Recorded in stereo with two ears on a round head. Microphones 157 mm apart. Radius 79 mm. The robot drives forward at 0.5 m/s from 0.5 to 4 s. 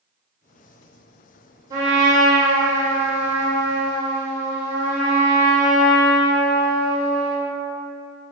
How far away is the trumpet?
About 1.8 m.